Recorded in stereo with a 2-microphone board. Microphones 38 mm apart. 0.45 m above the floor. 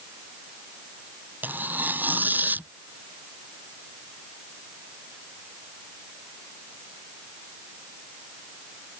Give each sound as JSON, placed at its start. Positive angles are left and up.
{"t": 1.4, "sound": "tearing paper", "side_deg": -55}